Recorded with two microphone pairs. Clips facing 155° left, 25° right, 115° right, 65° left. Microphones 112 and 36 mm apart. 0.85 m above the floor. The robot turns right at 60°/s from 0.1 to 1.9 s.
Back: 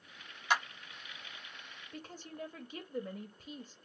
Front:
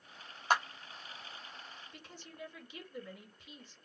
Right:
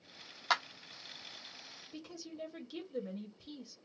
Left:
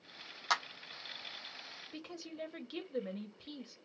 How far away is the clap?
About 1.0 m.